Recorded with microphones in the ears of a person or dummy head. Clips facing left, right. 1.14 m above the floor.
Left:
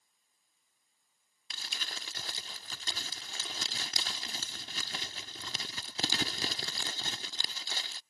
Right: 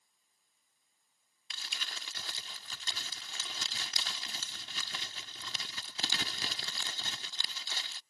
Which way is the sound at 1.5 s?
35° left (ahead or behind).